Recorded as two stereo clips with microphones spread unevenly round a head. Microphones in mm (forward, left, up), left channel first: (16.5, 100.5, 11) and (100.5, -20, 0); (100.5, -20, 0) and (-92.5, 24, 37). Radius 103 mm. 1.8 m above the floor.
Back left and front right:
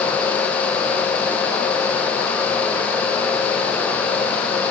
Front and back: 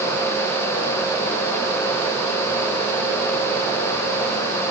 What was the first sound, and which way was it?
Only background noise.